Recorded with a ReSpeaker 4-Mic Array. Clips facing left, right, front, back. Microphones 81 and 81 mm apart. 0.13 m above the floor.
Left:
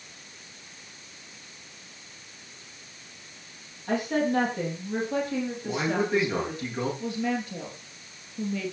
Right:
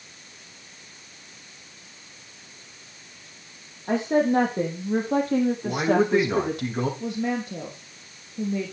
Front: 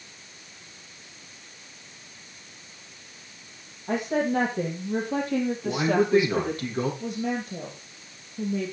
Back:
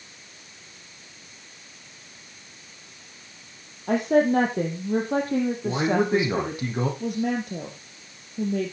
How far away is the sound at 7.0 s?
About 3 m.